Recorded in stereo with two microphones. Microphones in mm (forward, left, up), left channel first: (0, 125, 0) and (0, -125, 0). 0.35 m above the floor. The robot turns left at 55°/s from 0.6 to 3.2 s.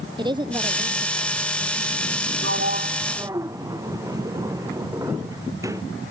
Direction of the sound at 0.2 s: 20° right.